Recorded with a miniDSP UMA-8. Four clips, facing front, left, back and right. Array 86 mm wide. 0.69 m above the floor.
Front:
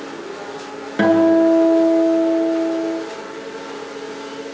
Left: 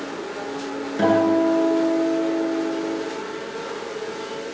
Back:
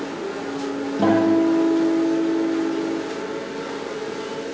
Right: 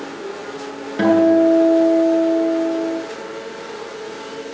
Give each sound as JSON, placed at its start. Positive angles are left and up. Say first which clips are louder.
{"t": 1.0, "sound": "a guitar", "louder": "right 5 dB, front 4 dB", "azimuth_deg": -15, "distance_m": 8.5}